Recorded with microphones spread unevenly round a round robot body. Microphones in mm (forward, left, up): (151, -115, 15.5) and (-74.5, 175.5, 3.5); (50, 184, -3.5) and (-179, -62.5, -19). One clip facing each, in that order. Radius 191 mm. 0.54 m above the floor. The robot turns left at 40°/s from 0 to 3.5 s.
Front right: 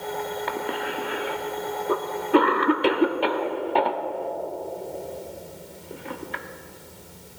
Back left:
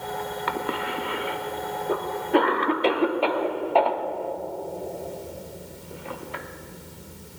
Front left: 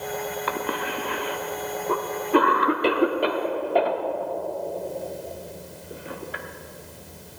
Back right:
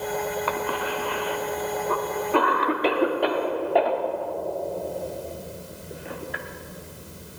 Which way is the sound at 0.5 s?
85° left.